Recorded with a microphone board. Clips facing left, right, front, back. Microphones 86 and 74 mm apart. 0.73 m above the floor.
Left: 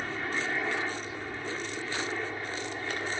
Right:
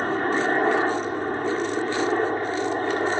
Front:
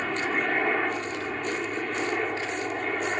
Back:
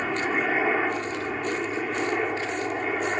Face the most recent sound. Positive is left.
turn(degrees=-100)